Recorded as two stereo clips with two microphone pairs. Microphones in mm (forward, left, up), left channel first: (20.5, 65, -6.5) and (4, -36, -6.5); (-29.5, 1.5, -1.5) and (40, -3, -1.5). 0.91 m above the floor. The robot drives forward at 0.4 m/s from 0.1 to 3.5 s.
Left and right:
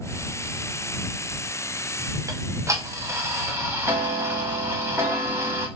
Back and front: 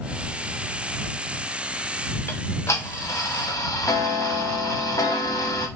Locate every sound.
2.3 s ticking: 145° right, 0.7 m; by 5.7 s 160° right, 1.1 m